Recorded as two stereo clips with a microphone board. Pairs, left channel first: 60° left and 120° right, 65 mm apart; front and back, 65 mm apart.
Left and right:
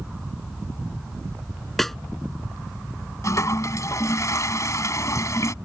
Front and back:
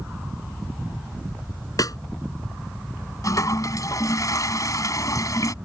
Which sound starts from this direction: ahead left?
A toilet flushing, at 3.2 s.